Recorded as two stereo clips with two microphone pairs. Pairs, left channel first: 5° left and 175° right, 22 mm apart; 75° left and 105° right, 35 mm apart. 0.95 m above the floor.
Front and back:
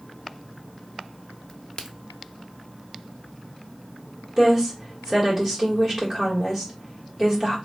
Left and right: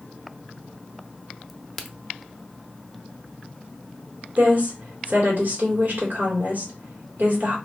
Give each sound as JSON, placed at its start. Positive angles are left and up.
{"t": 1.5, "sound": "a crack", "azimuth_deg": -10, "distance_m": 0.6}
{"t": 4.4, "sound": "a woman speaking", "azimuth_deg": -110, "distance_m": 1.8}